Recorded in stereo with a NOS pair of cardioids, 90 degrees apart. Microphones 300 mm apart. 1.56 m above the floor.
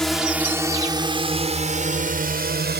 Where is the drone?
Straight ahead; by 2.8 s 30° right.